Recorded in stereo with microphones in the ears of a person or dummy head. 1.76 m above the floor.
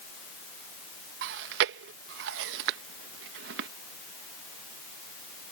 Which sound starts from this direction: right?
Chewing, at 1.2 s.